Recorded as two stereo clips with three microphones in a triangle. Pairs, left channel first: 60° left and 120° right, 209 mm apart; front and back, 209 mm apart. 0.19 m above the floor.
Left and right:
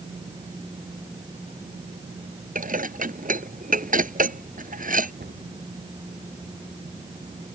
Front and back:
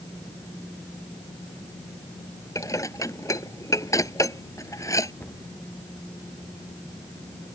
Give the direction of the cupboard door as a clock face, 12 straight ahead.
3 o'clock.